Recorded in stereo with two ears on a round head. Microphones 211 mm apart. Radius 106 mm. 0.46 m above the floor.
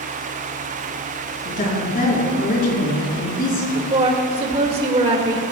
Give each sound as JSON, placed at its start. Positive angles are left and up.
{"t": 1.4, "sound": "a woman speaking", "side_deg": 40, "distance_m": 5.0}
{"t": 3.9, "sound": "a woman speaking", "side_deg": -25, "distance_m": 1.9}